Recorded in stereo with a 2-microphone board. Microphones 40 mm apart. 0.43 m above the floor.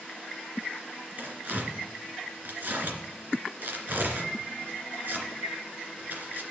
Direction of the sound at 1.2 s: 55° right (ahead or behind).